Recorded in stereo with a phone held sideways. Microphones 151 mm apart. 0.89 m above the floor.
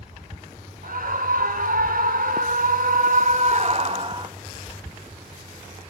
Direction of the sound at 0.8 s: 65° right (ahead or behind).